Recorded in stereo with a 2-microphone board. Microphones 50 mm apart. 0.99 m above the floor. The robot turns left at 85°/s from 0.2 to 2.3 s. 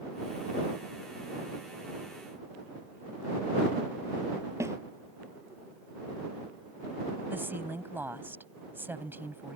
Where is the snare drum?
70° right (ahead or behind).